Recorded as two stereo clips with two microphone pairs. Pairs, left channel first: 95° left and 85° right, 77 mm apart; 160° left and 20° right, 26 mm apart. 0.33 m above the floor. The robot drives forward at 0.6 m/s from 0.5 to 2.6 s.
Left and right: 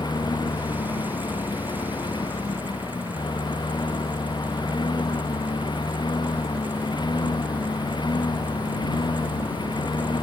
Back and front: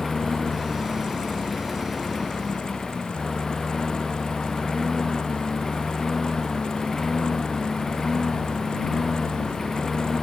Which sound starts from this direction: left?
A lawn mower, at 0.0 s.